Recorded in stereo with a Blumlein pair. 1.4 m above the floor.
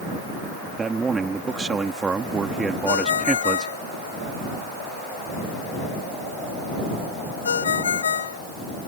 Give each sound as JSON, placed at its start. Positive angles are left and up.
{"t": 0.8, "sound": "a man speaking", "azimuth_deg": -15}
{"t": 2.9, "sound": "a ringtone", "azimuth_deg": 65}